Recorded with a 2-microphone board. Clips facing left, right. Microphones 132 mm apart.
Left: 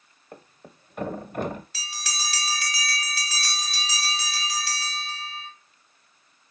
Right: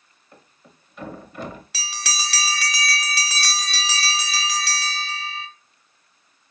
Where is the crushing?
I don't hear crushing.